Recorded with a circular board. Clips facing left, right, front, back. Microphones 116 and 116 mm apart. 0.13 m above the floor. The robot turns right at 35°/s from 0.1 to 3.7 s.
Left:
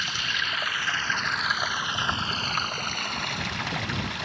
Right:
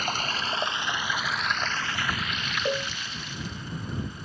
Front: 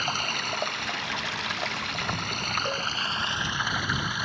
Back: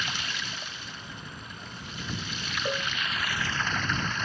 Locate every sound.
0.0 s running water: 45° right; by 4.3 s 80° left
2.6 s a cowbell: 95° right; by 2.9 s 85° right